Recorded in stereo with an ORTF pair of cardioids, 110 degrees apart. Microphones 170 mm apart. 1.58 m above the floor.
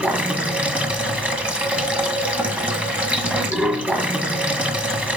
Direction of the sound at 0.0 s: 10° right.